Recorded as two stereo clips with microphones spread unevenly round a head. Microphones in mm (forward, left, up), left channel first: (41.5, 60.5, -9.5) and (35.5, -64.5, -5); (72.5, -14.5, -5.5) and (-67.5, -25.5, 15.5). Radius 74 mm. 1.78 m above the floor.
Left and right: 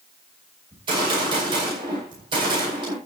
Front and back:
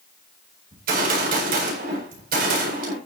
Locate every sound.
0.7 s a gunshot: 155° right, 9 m